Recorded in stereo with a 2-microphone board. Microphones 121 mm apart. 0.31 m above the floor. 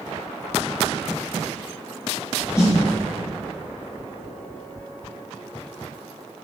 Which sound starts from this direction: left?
A snare drum, at 2.6 s.